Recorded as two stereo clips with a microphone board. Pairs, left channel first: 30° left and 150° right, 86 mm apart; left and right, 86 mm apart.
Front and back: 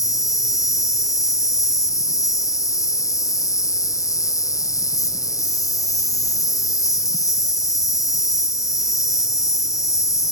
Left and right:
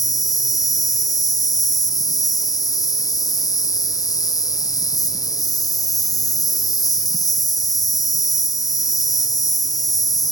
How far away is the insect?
About 0.8 m.